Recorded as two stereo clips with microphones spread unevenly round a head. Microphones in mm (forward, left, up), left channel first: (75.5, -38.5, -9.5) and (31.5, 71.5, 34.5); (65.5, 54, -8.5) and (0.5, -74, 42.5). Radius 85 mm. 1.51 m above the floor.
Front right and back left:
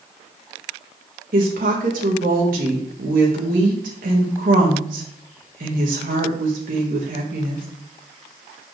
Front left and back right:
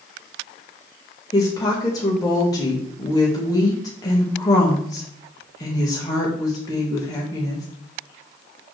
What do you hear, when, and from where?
1.3 s a woman speaking: 135° left, 1.8 m